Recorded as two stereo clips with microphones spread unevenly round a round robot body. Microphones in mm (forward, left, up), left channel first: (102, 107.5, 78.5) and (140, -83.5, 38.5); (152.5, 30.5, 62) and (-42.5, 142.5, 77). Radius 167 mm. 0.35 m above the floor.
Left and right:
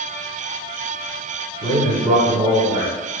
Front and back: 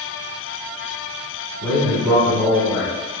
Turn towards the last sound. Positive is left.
turn(degrees=-95)